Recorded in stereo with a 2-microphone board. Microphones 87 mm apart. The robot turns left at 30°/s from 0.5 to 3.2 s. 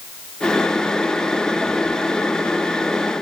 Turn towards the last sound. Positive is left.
No sound to turn to.